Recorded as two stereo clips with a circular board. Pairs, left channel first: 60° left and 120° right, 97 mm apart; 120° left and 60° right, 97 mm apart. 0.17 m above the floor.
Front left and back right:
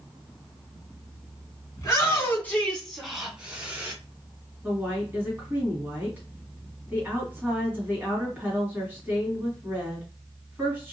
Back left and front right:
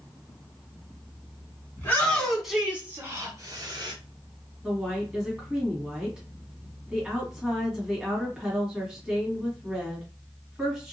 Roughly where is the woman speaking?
Behind right.